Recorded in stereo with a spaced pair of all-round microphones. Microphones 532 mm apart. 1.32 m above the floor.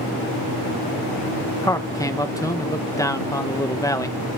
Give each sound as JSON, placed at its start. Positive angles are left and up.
{"t": 1.6, "sound": "a man speaking", "side_deg": 5, "distance_m": 0.9}